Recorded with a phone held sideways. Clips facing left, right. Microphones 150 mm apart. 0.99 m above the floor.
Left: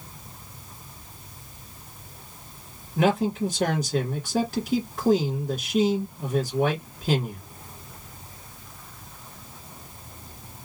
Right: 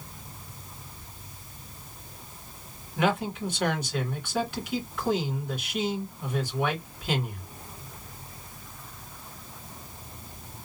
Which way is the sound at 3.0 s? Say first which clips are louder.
Left 5 dB; 35° left (ahead or behind).